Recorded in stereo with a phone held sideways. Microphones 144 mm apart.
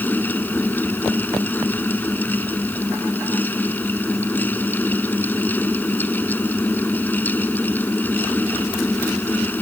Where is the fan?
15° left (ahead or behind).